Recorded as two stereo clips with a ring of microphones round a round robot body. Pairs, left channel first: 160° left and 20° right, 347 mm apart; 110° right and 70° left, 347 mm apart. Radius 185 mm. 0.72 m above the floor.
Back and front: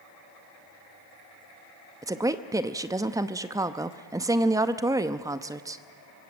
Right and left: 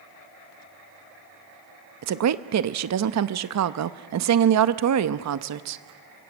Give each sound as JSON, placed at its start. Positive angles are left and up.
{"t": 2.0, "sound": "a woman speaking", "azimuth_deg": 55, "distance_m": 0.8}